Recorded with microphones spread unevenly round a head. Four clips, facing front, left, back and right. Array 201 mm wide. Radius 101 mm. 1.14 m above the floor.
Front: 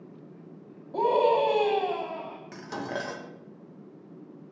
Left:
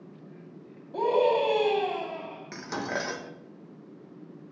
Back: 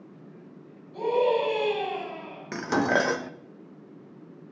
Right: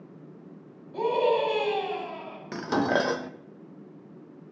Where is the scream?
25° left, 9 m; by 2.4 s 20° left, 8.5 m.